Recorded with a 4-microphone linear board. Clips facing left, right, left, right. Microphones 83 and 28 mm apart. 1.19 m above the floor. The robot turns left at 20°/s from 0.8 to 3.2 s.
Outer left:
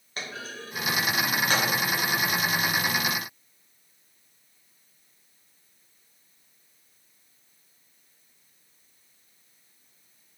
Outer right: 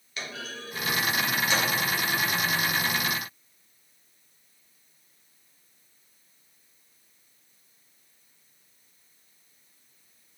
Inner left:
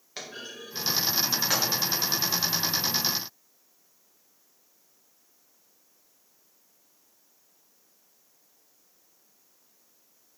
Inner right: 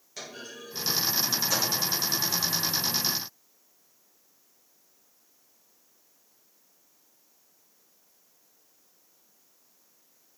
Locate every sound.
0.2 s a clunk: 40° left (ahead or behind), 1.3 m; by 1.7 s 55° left (ahead or behind), 1.3 m